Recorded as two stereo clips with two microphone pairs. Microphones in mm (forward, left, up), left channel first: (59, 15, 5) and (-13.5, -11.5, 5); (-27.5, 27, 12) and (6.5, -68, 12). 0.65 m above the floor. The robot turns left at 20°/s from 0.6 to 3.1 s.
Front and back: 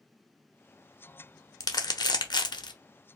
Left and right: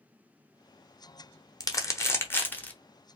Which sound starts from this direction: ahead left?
Crumpling, at 1.6 s.